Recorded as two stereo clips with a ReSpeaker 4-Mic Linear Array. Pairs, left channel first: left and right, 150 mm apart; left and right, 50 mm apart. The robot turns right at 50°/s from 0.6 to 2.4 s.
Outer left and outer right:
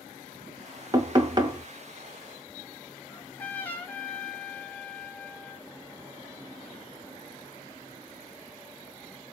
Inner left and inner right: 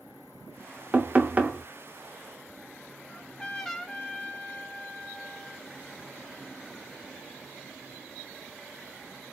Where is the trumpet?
10° left (ahead or behind), 0.7 m.